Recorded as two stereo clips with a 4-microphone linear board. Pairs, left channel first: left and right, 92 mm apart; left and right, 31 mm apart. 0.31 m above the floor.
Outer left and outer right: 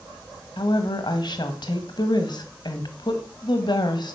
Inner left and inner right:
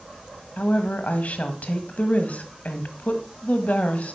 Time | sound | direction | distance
0.6 | a woman speaking | 55° left (ahead or behind) | 1.5 m